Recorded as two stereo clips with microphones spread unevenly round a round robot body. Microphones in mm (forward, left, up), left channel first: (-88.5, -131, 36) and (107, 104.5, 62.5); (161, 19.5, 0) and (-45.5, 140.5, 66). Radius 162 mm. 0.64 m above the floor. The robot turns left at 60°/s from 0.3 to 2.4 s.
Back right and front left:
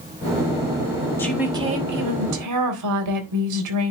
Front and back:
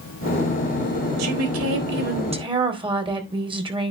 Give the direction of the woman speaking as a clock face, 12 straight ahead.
7 o'clock.